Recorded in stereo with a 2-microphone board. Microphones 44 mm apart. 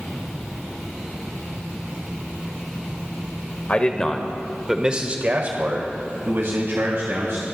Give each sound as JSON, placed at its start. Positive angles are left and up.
{"t": 3.7, "sound": "a man speaking", "side_deg": 30, "distance_m": 1.3}